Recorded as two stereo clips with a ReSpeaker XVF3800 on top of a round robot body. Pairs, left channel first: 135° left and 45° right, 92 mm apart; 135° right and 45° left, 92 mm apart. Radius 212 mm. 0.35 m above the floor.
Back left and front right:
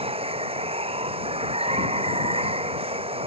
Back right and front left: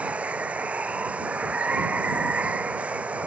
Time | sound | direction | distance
0.0 | running water | 30° right | ?